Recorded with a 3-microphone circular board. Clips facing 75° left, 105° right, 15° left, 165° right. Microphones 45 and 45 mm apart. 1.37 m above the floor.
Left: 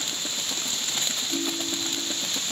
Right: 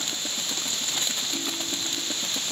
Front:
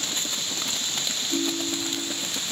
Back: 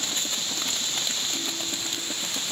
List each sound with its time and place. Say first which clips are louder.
1.3 s a ringtone: left 2 dB, front 5 dB; 5° left, 2.5 m